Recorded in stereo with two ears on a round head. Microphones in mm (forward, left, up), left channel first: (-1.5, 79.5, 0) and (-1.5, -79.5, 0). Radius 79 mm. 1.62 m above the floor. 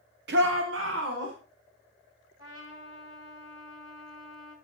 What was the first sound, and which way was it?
A shout, 60° right (ahead or behind).